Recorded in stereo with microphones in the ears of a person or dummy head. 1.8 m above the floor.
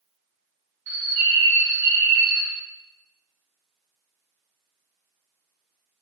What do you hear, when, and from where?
0.9 s a bird: 60° right (ahead or behind), 1.2 m